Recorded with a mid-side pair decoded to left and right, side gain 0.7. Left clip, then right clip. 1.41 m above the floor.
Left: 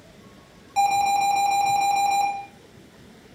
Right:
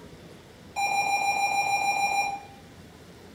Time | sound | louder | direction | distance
0.8 | an alarm | left 5 dB | 45° left | 1.5 m